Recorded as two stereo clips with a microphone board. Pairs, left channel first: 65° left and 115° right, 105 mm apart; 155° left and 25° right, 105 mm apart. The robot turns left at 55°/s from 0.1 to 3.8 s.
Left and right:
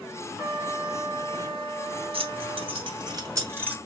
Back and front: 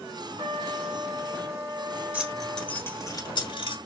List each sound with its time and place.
0.4 s a trumpet: 15° right, 1.9 m; by 2.8 s 145° right, 1.9 m
2.1 s keys jangling: 100° right, 1.4 m; by 3.8 s 170° left, 1.4 m